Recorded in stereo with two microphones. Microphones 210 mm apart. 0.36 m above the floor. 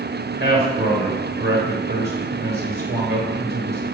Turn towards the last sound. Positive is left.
turn(degrees=-55)  # may be behind; listen again after turning